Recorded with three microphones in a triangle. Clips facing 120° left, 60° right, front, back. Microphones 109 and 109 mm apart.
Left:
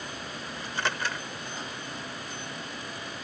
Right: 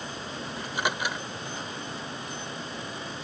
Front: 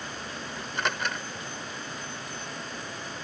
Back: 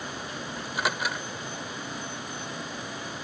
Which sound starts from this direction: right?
A microwave, at 0.6 s.